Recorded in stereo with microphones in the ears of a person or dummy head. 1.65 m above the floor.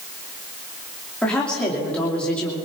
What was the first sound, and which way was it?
A woman speaking, 5° left (ahead or behind).